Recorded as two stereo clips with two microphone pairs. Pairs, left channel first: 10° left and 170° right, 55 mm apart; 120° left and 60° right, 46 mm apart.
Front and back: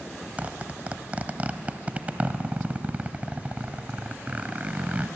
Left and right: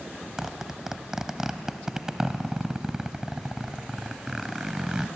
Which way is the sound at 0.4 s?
130° right.